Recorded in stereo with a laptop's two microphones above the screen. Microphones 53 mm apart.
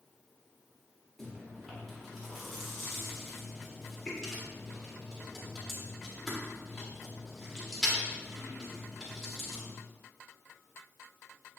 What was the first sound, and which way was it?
Chewing, 10° left (ahead or behind).